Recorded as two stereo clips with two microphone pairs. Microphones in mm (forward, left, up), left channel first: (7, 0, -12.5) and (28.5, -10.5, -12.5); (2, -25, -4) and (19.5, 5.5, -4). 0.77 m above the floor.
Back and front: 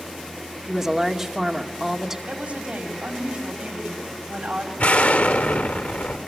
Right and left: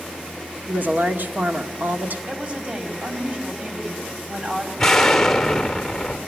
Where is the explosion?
165° left, 1.4 m.